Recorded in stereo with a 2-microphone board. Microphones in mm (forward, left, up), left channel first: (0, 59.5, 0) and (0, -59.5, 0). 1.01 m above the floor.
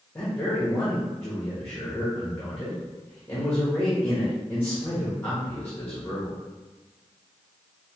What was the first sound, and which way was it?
A man speaking, 20° left (ahead or behind).